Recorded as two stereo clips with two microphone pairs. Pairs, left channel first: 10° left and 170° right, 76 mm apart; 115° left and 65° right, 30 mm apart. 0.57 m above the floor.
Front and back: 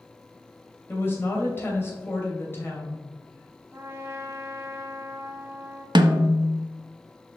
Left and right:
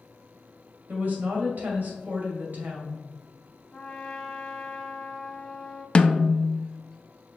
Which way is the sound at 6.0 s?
Straight behind.